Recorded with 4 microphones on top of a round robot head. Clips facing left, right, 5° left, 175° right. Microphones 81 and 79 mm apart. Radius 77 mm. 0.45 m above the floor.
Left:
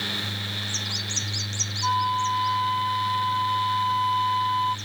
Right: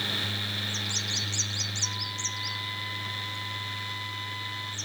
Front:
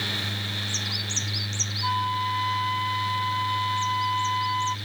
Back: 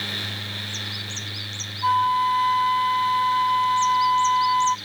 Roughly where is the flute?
Behind left.